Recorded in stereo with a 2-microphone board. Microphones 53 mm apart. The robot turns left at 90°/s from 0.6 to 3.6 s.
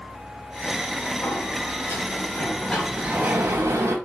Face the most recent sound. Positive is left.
turn(degrees=-70)  # may be behind; listen again after turning